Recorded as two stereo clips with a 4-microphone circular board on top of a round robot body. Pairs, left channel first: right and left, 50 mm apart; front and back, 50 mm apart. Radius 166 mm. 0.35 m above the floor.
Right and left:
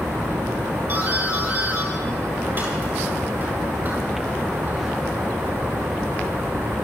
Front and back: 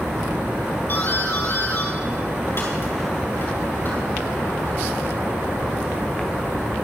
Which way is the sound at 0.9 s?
40° left.